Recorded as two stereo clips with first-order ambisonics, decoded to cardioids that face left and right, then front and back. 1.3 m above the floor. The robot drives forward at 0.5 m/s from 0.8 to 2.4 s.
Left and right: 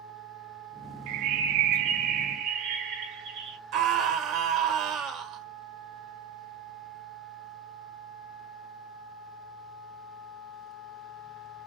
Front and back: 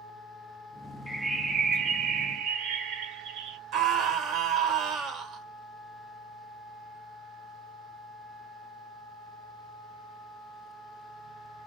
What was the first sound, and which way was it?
A bird, 90° right.